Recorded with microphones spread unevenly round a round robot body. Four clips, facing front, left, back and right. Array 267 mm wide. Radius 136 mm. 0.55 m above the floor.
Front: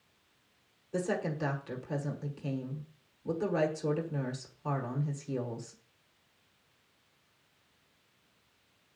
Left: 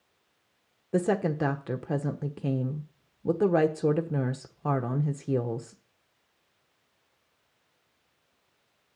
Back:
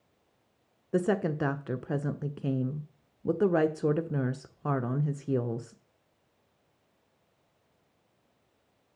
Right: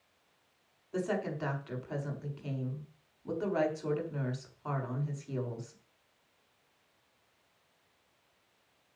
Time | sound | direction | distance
0.9 | a woman speaking | 125° left | 1.1 m